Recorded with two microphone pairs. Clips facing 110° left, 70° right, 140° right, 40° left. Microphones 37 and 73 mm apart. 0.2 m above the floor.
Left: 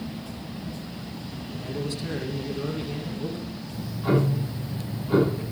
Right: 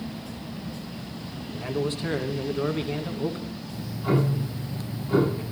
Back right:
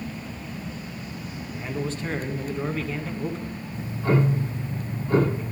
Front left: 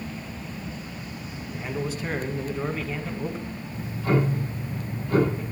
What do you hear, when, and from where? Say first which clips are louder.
1.5 s a man speaking: right 4 dB, even; 40° right, 1.4 m
3.7 s ticking: left 1 dB, back right 1 dB; 160° left, 7 m